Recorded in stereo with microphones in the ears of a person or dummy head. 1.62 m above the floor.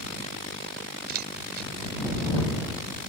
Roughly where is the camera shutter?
Right.